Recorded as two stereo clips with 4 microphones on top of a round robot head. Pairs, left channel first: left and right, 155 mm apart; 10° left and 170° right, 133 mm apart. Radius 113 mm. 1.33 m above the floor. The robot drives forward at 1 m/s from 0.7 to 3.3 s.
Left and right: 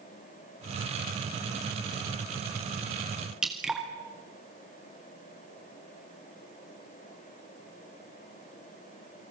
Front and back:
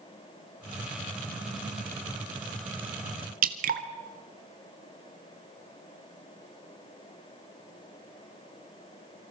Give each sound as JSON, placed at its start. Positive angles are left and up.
{"t": 3.4, "sound": "dripping", "azimuth_deg": -175, "distance_m": 1.7}